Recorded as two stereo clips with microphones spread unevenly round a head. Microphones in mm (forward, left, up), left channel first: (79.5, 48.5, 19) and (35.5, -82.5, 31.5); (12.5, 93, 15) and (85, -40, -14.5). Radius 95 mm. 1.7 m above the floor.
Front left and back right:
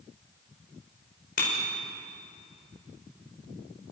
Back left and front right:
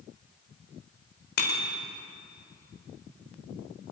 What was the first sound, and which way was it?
A bicycle bell, 120° left.